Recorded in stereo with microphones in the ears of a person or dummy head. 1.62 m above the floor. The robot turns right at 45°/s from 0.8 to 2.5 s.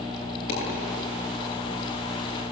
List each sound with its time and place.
0.5 s a dropped coin: 55° left (ahead or behind), 9 m